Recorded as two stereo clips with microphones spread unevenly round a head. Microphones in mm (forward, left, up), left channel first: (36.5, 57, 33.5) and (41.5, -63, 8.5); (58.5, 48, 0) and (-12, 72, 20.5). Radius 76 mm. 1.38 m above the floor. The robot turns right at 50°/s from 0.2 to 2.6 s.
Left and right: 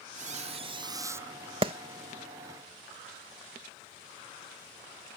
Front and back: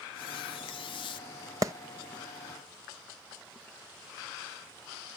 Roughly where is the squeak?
Ahead right.